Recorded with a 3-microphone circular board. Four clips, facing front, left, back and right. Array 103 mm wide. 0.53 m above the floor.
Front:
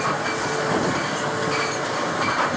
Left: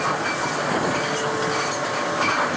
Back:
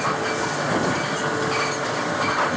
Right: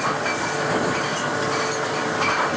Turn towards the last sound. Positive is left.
No sound to turn to.